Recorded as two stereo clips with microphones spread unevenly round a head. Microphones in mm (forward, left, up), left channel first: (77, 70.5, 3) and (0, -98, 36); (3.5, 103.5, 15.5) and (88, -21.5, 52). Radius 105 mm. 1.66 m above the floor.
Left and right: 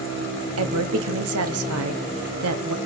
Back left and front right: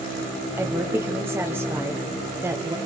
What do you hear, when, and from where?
0.6 s a woman speaking: 135° right, 1.1 m